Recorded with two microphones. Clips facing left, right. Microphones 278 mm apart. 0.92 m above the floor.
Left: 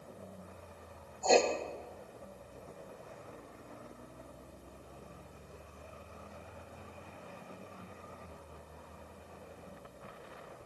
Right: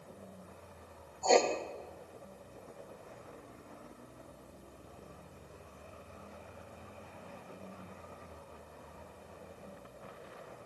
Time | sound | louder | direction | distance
1.2 | writing | even | 5° left (ahead or behind) | 0.7 m